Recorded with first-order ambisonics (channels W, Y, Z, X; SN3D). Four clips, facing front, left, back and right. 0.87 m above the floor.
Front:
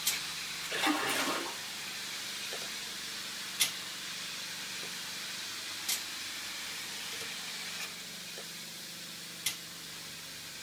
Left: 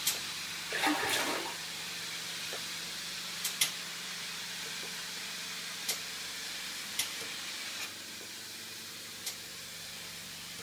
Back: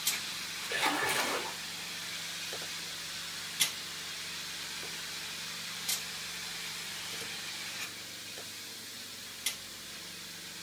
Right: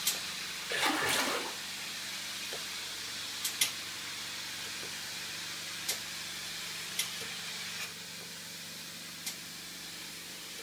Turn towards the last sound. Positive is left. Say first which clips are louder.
# even, back 1 dB
turn(degrees=-125)